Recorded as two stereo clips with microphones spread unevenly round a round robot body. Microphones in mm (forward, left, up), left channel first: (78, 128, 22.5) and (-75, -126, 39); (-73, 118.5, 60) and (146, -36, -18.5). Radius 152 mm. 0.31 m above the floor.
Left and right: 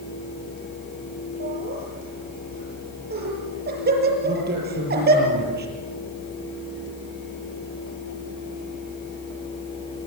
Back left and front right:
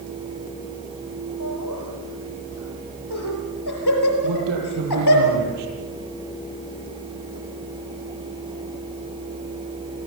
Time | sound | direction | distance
1.4 | laughter | straight behind | 8 m
4.2 | a man speaking | 60° right | 7.5 m